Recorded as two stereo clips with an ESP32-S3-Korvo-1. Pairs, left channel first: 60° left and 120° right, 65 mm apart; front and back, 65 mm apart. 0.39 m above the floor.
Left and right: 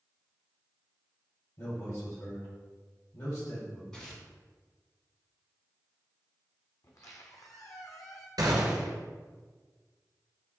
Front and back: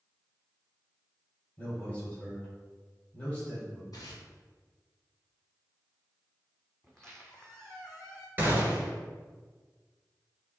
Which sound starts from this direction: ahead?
Tearing paper, at 3.9 s.